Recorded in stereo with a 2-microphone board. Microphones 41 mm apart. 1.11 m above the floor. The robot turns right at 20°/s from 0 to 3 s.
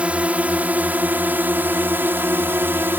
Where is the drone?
145° right; by 3.0 s 85° right.